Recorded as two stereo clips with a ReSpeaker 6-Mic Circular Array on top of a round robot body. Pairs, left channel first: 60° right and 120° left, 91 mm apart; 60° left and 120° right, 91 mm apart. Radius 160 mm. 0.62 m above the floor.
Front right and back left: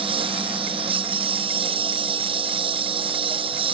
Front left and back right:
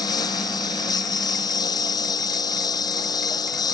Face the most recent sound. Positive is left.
turn(degrees=105)